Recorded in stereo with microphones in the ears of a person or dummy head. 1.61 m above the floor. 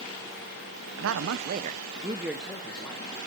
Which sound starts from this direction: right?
A man speaking, at 1.0 s.